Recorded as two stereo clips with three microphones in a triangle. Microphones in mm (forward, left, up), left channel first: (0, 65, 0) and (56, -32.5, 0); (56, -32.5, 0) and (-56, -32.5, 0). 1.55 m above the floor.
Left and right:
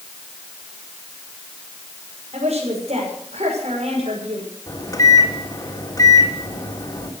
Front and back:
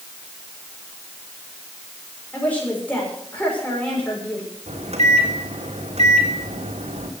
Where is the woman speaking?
75° right, 6.5 m.